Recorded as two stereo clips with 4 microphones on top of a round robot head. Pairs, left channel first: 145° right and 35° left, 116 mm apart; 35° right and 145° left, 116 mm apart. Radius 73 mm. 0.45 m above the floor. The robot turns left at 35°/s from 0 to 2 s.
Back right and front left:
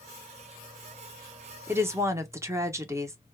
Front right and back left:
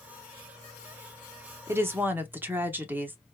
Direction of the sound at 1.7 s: 95° left.